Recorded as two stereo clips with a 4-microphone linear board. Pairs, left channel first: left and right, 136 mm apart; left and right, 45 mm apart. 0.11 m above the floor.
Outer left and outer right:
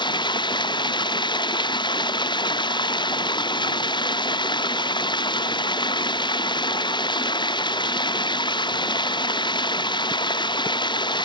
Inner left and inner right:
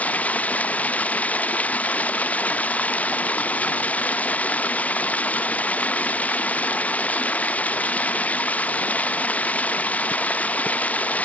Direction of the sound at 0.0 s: 35° left (ahead or behind).